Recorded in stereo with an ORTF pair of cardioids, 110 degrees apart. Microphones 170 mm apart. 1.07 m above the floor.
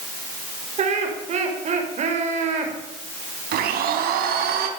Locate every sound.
0.8 s laughter: 45° right, 5.5 m
3.5 s a blender: 65° right, 3 m